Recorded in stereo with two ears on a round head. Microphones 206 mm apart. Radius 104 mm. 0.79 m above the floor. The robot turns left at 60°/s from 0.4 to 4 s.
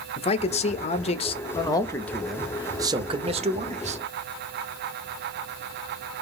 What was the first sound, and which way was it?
A man speaking, 25° left (ahead or behind).